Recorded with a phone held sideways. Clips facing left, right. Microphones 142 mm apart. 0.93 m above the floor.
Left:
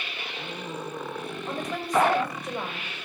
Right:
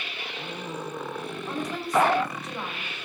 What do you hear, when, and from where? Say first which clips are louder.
1.5 s a woman speaking: even; 60° left (ahead or behind), 3.5 m